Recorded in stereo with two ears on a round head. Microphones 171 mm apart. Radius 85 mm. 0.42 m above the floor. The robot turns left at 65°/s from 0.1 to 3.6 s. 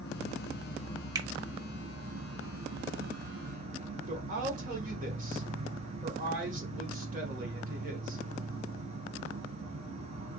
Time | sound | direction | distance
0.0 | an insect | 85° left | 1.0 m
1.1 | a finger snap | 20° right (ahead or behind) | 0.7 m
4.1 | a woman speaking | 45° right (ahead or behind) | 1.5 m